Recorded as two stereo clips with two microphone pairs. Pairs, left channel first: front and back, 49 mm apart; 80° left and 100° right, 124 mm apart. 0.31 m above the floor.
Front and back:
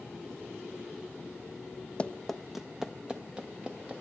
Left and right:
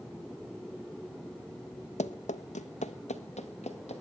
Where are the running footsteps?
65° left, 0.8 m; by 4.0 s 115° left, 2.5 m.